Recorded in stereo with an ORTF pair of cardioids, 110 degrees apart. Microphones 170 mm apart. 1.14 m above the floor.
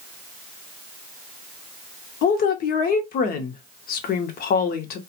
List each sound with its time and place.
2.2 s a woman speaking: 65° left, 0.9 m